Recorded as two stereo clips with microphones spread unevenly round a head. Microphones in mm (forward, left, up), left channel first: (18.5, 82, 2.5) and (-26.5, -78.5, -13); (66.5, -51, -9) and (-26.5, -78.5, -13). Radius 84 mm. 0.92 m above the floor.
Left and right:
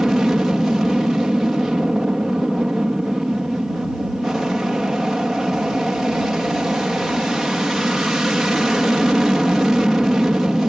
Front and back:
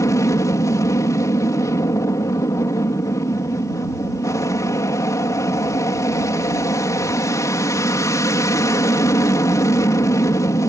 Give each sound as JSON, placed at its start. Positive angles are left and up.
{"t": 0.0, "sound": "an aircraft", "azimuth_deg": -20}